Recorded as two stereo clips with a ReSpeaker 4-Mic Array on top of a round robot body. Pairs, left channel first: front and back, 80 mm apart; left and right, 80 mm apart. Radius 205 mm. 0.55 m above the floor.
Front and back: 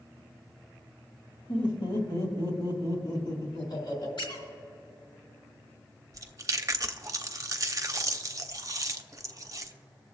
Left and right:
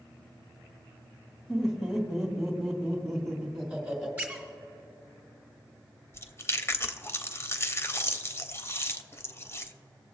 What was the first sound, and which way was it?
Laughter, 5° right.